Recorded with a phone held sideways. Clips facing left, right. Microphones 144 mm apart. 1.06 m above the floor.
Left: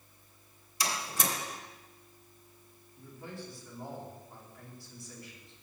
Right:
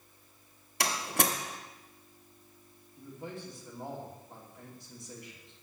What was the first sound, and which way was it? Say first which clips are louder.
A door slam: right 3 dB; 75° right (ahead or behind).